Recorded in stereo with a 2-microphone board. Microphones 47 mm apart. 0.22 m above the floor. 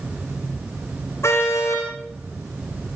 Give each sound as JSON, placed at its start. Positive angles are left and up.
{"t": 1.2, "sound": "a car horn", "side_deg": 65, "distance_m": 5.0}